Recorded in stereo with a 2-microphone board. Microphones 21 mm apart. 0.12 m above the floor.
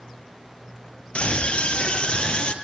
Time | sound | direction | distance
1.1 | a scream | 55° left (ahead or behind) | 3.5 m